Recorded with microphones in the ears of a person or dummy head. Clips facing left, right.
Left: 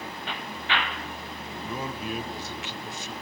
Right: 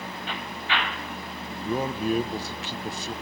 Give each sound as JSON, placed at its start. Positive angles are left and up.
{"t": 1.6, "sound": "a man speaking", "side_deg": -35, "distance_m": 0.5}